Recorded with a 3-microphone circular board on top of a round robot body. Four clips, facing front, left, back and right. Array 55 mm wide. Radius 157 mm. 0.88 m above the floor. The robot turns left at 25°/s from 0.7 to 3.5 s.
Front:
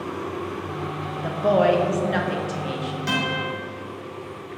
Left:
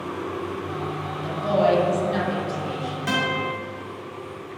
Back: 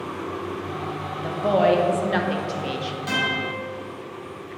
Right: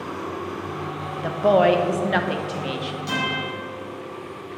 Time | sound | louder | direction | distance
1.2 | a woman speaking | right 4 dB, front 1 dB | 75° right | 1.0 m
3.1 | a guitar | left 2 dB, back 1 dB | 60° left | 2.5 m